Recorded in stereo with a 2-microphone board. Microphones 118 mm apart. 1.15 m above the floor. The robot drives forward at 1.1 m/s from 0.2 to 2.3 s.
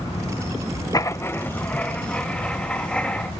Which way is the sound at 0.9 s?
30° left (ahead or behind).